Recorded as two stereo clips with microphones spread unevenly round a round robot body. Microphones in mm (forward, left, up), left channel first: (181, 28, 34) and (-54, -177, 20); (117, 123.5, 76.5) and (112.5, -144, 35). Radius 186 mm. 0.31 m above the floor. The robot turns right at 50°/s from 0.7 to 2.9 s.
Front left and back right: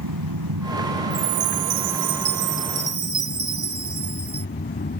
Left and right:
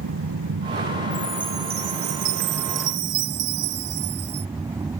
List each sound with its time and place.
0.0 s an aircraft: 125° right; by 5.0 s 15° right
1.1 s a chime: 170° left; by 4.5 s 100° right